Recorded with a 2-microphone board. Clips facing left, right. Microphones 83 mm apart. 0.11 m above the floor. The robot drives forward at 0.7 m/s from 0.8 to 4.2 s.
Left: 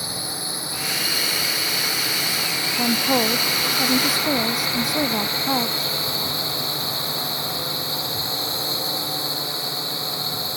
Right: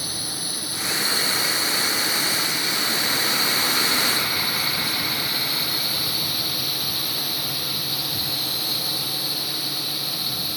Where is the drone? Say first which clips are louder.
Left 2 dB; 25° left (ahead or behind).